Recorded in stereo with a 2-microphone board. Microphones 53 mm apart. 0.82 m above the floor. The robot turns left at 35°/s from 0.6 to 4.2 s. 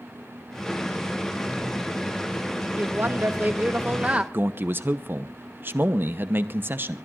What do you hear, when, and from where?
2.8 s a woman speaking: 90° right, 1.0 m; by 4.2 s 140° right, 1.0 m
4.3 s a man speaking: 45° right (ahead or behind), 0.8 m